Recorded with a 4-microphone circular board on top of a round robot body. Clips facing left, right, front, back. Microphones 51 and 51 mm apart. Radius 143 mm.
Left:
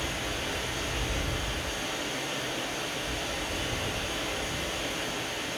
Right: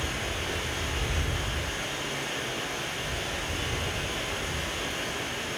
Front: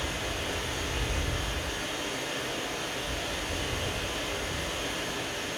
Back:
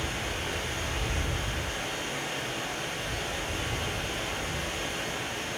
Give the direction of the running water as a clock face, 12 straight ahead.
5 o'clock.